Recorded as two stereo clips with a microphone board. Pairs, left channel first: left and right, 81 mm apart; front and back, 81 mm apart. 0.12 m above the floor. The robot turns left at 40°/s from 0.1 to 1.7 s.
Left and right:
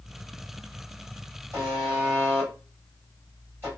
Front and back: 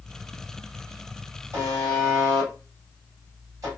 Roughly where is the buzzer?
Behind right.